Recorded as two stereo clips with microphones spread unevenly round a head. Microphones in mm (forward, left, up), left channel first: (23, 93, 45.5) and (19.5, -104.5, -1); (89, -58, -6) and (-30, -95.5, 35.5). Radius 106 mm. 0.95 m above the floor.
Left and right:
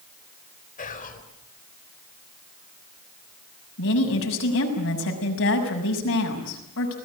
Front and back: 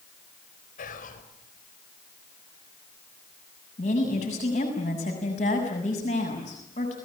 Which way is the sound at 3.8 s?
65° left.